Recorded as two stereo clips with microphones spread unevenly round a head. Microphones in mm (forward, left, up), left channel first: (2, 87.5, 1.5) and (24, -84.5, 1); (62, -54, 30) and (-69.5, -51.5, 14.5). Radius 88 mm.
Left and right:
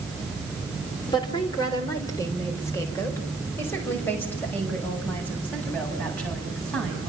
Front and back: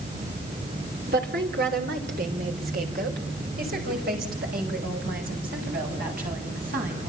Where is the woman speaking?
165° left, 4 m; by 7.1 s 175° right, 9.5 m.